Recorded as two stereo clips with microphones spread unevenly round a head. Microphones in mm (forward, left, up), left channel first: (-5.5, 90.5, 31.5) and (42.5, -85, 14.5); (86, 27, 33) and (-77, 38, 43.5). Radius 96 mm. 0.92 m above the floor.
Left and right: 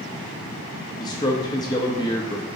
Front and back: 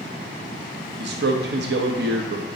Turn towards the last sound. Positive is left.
turn(degrees=175)